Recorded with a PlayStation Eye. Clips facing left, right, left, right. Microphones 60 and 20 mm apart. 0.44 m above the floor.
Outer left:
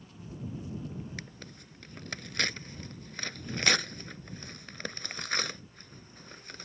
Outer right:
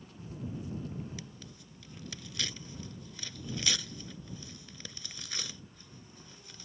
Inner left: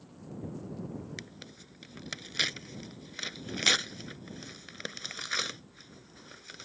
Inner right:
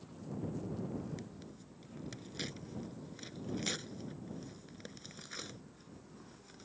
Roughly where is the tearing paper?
Left.